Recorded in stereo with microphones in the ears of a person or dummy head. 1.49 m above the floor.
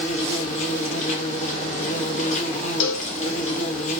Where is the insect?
40° left (ahead or behind), 0.8 m.